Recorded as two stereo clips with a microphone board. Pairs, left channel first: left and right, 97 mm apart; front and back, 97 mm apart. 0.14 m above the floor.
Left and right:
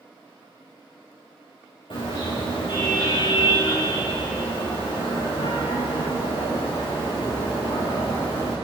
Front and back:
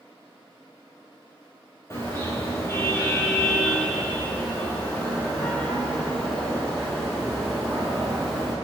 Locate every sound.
1.9 s a car horn: 60° left, 6.5 m; by 8.6 s 90° left, 6 m